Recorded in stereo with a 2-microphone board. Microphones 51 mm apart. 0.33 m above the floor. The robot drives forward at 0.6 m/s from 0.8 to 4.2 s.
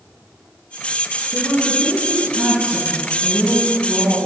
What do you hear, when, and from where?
1.3 s a woman speaking: 70° right (ahead or behind), 2.5 m; by 4.2 s 50° right (ahead or behind), 3.5 m